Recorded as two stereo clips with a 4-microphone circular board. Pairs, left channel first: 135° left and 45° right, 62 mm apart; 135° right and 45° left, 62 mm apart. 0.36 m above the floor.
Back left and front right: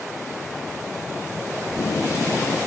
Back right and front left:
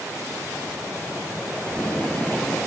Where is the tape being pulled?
160° left, 2 m.